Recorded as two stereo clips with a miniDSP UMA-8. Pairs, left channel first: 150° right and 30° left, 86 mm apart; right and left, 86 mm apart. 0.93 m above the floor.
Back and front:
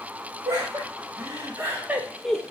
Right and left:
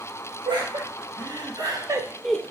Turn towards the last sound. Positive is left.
turn(degrees=-105)